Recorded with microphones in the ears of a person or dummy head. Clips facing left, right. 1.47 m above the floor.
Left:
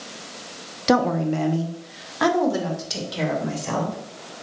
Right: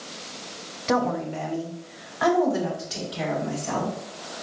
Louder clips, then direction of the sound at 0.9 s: Left 5 dB; 55° left (ahead or behind).